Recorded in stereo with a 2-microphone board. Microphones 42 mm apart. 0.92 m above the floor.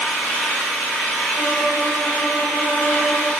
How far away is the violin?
About 1.1 m.